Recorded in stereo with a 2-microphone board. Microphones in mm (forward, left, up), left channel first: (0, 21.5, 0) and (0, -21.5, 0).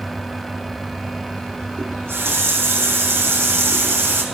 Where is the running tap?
65° right (ahead or behind), 5 m.